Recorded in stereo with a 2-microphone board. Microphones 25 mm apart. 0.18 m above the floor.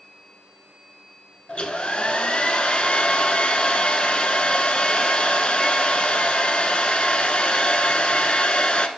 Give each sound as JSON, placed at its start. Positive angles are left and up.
{"t": 1.5, "sound": "a hair dryer", "side_deg": 50, "distance_m": 0.7}